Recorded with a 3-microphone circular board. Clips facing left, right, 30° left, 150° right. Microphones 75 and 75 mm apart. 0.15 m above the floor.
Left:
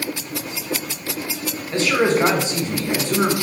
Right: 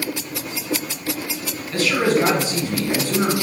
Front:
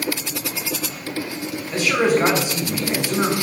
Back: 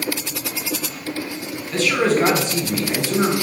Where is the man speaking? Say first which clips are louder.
Left 1 dB, even; 90° left, 1.2 m.